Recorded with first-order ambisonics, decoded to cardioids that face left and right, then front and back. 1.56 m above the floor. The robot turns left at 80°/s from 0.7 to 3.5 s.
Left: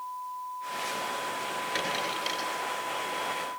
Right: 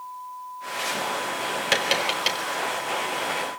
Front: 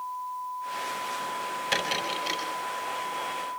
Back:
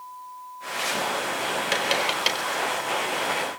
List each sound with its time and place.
1.7 s tapping: 105° right, 4 m; by 2.4 s 155° right, 4 m